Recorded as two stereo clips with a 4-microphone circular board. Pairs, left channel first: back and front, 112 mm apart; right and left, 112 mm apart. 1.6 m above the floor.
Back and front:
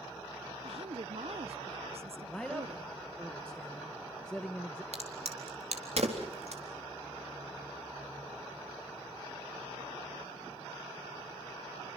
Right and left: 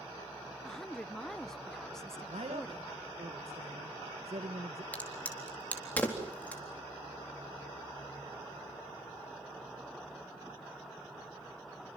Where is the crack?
15° right, 4 m.